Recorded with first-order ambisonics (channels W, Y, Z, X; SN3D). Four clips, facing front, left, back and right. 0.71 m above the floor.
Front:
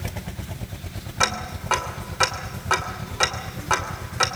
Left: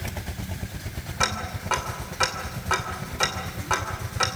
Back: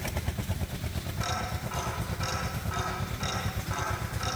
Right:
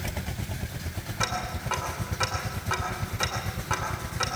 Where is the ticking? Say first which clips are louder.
Left 3 dB, front 10 dB; 15° left, 2.5 m.